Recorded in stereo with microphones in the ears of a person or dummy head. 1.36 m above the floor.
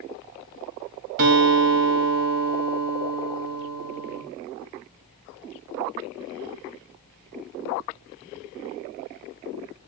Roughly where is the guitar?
Right.